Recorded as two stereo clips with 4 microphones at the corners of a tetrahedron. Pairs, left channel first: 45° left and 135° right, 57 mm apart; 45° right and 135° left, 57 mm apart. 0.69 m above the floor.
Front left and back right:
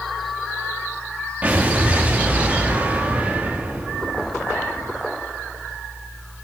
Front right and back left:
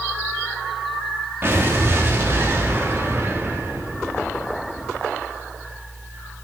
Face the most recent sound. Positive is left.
turn(degrees=165)